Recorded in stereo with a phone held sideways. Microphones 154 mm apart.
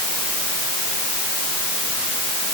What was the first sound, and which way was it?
Only background noise.